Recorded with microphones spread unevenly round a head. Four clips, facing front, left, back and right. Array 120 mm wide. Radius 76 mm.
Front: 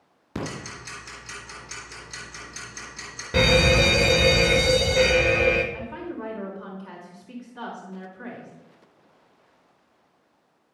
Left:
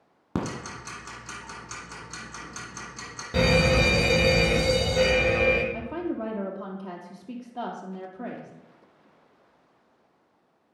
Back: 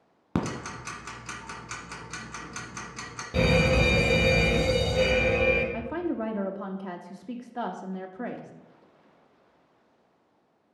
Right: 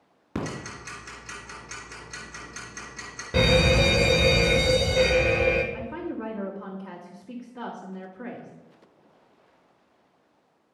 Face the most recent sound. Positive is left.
turn(degrees=165)